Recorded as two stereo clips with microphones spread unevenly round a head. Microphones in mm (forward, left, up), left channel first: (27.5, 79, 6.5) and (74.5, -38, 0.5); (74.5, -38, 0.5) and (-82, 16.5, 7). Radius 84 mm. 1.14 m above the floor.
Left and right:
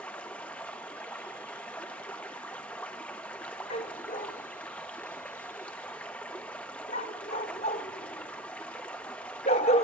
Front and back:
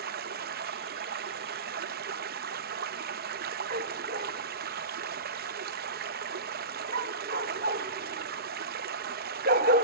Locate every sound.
0.0 s running water: 165° right, 0.8 m
3.7 s a dog barking: 140° left, 1.0 m